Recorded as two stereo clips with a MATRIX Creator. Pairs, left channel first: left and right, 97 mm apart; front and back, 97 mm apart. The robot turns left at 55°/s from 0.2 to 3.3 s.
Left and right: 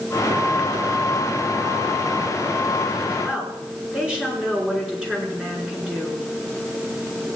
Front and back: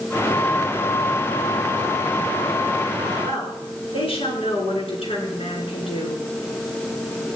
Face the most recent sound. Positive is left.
turn(degrees=-10)